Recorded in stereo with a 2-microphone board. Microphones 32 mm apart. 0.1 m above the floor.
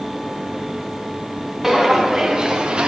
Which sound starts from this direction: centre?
Footsteps, at 1.6 s.